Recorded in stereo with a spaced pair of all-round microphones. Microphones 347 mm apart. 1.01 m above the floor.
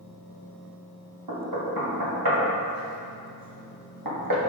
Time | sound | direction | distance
1.3 | knocking | 70° right (ahead or behind) | 1.2 m